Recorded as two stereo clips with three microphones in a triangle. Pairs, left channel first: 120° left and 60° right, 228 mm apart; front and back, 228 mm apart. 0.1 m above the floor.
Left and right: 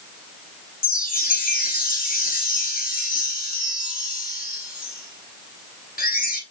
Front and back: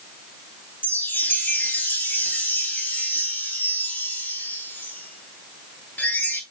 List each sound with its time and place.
0.8 s a chime: 80° left, 0.8 m